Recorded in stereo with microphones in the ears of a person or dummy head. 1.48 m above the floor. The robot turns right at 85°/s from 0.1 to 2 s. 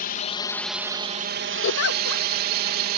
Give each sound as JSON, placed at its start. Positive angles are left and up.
{"t": 0.0, "sound": "a drone", "azimuth_deg": 130}
{"t": 1.6, "sound": "a giggle", "side_deg": 65}